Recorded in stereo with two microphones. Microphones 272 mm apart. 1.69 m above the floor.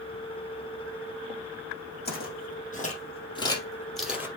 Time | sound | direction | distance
2.0 | footsteps | 35° left (ahead or behind) | 4.5 m